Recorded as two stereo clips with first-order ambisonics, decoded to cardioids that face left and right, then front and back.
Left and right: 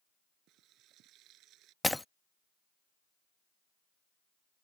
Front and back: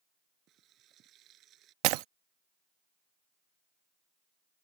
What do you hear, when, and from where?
0.5 s frying: 130° right
1.8 s breaking glass: 175° left